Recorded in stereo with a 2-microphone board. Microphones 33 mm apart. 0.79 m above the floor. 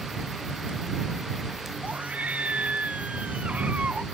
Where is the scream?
45° right (ahead or behind).